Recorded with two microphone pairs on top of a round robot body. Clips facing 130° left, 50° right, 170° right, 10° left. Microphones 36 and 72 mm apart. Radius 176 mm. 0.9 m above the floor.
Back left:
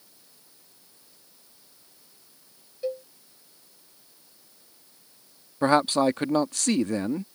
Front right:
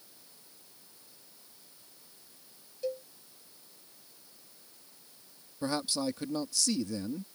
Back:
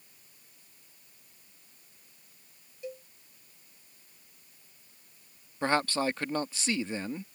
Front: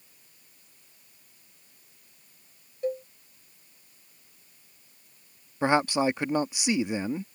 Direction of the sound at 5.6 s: 85° left.